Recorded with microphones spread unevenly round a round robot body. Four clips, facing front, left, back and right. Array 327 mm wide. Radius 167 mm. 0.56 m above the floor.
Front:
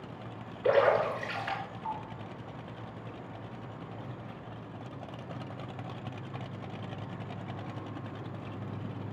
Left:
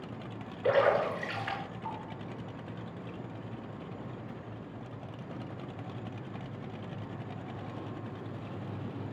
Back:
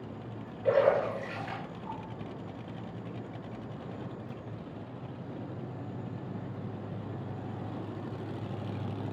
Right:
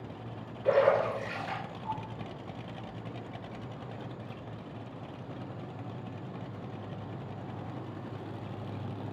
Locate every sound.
0.6 s a splash: 55° left, 5 m